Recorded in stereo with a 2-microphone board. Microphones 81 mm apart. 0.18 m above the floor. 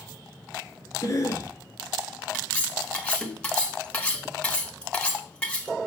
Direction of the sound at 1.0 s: 35° left (ahead or behind).